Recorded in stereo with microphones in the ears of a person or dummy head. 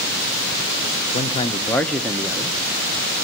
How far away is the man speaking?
About 0.6 m.